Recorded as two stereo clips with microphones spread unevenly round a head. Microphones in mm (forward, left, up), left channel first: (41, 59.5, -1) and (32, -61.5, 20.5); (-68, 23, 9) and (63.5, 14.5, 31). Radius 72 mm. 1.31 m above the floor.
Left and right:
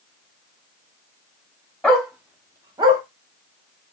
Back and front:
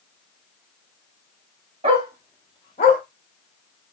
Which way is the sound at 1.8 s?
5° right.